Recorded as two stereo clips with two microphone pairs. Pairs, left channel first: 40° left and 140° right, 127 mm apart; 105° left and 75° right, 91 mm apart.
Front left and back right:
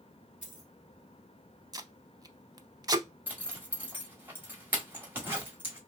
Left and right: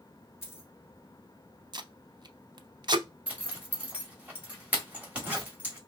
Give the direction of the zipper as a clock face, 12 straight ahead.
4 o'clock.